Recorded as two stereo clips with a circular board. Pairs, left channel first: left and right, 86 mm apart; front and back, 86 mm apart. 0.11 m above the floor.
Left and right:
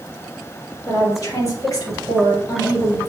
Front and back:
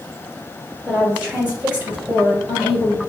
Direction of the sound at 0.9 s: 105° left.